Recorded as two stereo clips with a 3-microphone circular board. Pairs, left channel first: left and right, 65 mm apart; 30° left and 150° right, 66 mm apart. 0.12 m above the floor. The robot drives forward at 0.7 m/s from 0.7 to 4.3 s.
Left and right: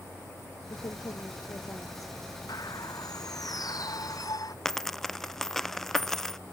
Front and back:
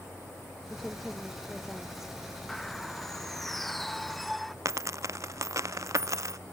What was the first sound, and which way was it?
A woman speaking, 120° left.